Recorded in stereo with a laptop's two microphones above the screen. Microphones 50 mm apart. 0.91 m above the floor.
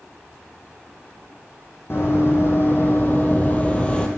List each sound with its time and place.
1.9 s running footsteps: 55° left (ahead or behind), 1.9 m; by 4.1 s 20° left (ahead or behind), 1.2 m